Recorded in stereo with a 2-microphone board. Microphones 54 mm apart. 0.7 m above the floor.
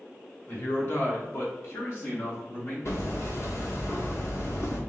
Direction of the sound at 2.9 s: 60° left (ahead or behind).